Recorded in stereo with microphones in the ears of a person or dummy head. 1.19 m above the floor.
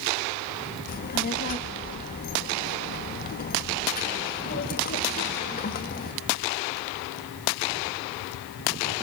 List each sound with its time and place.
0.9 s a child speaking: 45° left (ahead or behind), 1.3 m